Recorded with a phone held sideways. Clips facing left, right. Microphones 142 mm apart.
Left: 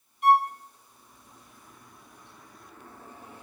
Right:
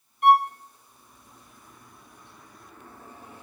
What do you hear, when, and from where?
0.2 s a violin: 60° right (ahead or behind), 2.0 m